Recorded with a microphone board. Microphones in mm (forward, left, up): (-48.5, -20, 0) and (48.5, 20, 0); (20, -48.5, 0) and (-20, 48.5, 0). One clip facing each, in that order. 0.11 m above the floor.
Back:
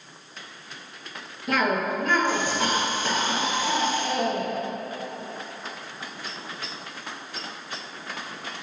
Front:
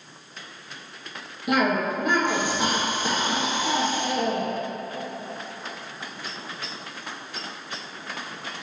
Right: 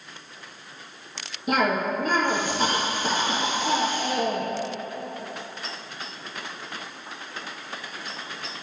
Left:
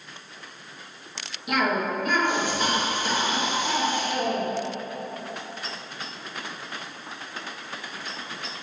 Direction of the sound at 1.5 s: 40° right.